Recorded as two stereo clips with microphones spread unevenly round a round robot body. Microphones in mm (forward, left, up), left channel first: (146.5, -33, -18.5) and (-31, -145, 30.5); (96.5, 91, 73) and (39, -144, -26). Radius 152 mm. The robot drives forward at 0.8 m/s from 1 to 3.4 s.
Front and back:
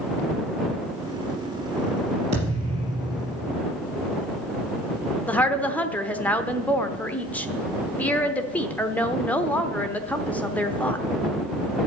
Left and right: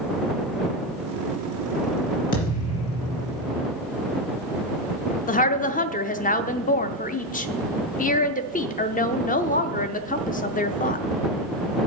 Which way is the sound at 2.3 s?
140° left.